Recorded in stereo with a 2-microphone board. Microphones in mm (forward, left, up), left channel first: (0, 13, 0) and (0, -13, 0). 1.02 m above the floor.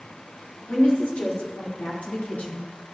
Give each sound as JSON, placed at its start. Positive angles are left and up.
{"t": 0.7, "sound": "a woman speaking", "side_deg": 85, "distance_m": 3.0}